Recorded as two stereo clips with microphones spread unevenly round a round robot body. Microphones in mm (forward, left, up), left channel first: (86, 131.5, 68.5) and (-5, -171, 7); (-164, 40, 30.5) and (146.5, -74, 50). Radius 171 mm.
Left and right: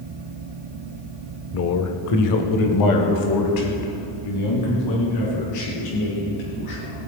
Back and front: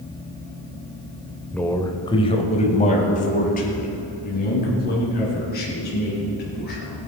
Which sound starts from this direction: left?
A man speaking, at 1.5 s.